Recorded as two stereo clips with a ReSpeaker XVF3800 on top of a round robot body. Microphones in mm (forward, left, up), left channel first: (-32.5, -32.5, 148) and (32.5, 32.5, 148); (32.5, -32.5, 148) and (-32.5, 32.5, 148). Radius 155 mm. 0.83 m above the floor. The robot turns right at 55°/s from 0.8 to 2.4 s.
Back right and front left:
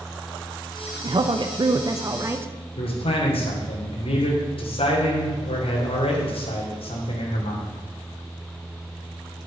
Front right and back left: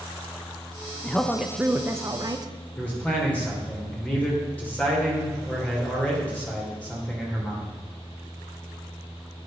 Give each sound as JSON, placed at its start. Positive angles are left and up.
{"t": 1.0, "sound": "a woman speaking", "azimuth_deg": 30, "distance_m": 1.1}
{"t": 2.8, "sound": "a man speaking", "azimuth_deg": -120, "distance_m": 3.0}